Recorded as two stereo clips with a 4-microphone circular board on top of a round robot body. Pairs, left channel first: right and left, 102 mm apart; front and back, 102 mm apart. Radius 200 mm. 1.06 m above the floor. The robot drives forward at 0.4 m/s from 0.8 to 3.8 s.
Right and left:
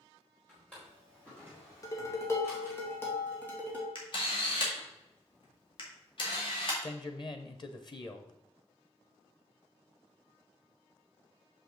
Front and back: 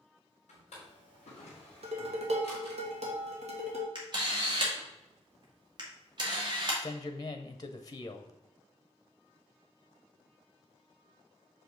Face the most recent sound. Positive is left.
turn(degrees=-50)